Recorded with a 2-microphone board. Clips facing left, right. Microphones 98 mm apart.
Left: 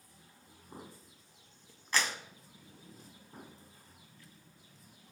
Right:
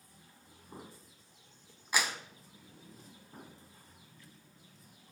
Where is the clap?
10° right (ahead or behind), 0.9 m.